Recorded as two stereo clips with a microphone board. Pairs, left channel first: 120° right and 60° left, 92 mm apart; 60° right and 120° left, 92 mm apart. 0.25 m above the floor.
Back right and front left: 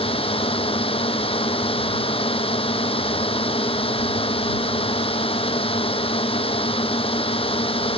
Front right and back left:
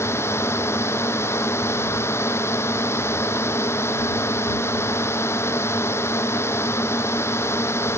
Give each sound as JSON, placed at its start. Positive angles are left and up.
{"t": 0.0, "sound": "a drone", "azimuth_deg": -120}